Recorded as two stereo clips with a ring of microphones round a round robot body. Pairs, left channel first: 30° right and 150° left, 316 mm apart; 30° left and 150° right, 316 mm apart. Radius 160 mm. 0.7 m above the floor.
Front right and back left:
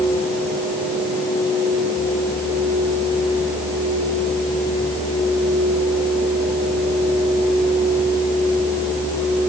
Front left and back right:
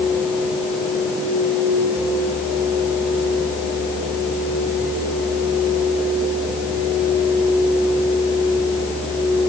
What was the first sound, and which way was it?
Only background noise.